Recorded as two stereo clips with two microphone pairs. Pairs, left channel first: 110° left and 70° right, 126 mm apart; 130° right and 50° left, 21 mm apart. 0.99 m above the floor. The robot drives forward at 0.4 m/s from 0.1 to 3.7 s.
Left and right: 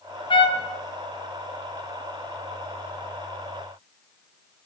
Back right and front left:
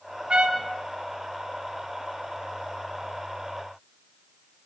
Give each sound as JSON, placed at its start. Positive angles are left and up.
{"t": 0.3, "sound": "a trumpet", "azimuth_deg": 65, "distance_m": 0.8}